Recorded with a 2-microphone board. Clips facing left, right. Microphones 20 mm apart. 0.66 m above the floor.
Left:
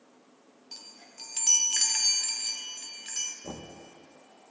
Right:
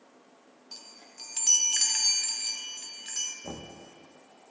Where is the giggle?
I don't hear a giggle.